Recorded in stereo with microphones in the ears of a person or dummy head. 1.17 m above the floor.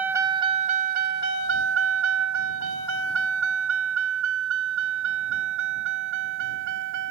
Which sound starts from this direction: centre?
A vehicle, at 0.0 s.